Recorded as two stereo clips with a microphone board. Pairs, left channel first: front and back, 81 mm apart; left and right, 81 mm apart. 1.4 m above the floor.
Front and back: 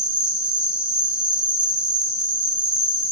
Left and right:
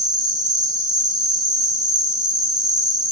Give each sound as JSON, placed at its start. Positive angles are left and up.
{"t": 0.0, "sound": "an insect", "azimuth_deg": -110, "distance_m": 0.9}